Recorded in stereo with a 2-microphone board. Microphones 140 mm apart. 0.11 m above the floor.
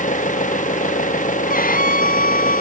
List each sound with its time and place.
0.0 s an engine running: 65° left (ahead or behind)
1.5 s a violin: 85° left